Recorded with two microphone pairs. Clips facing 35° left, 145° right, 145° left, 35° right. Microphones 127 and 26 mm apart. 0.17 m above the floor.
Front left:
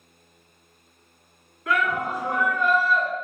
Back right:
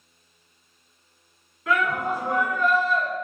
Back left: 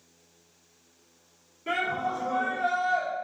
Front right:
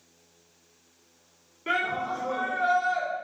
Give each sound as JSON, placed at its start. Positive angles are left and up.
{"t": 1.7, "sound": "a shout", "azimuth_deg": -60, "distance_m": 1.4}